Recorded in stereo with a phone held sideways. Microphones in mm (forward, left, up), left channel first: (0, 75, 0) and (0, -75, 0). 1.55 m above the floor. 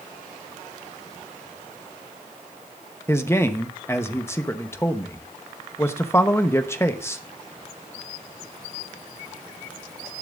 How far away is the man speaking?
About 1.0 m.